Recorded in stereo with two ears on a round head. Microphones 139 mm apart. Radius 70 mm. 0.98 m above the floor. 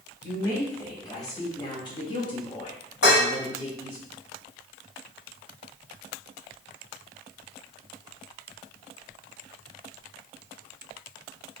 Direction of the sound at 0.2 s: 20° left (ahead or behind).